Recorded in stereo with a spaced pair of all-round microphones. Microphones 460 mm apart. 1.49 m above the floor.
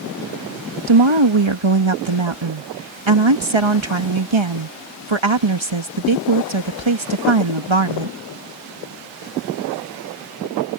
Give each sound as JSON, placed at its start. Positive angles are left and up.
{"t": 0.9, "sound": "a woman speaking", "side_deg": -75}